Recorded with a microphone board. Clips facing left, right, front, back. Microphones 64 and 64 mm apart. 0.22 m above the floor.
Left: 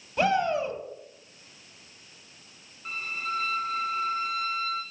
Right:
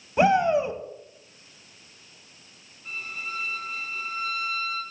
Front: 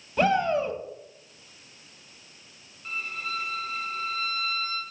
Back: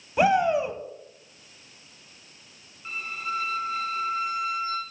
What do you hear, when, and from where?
0.2 s a shout: 125° right, 1.0 m
2.9 s a violin: 110° left, 2.0 m